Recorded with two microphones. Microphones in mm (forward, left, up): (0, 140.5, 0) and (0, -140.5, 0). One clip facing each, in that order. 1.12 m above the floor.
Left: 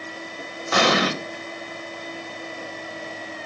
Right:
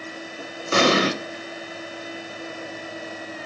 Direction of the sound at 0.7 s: 30° right (ahead or behind).